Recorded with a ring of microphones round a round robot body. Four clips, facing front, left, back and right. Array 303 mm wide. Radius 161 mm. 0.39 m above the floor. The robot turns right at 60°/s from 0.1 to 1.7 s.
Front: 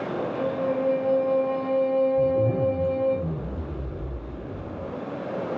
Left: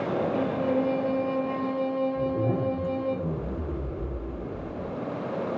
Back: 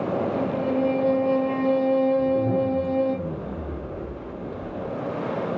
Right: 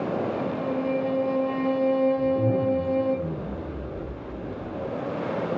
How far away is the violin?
About 0.9 m.